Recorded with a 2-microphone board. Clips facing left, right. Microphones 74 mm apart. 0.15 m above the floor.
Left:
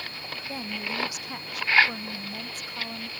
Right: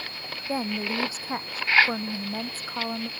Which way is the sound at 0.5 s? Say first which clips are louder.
Right 7 dB; 30° right (ahead or behind).